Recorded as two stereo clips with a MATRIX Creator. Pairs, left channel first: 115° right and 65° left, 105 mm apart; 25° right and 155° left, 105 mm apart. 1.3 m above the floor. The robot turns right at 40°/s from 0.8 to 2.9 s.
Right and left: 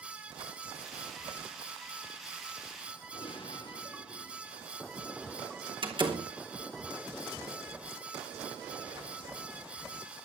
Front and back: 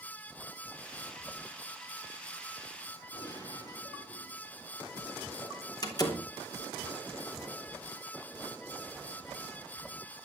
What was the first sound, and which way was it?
A gunshot, 75° right.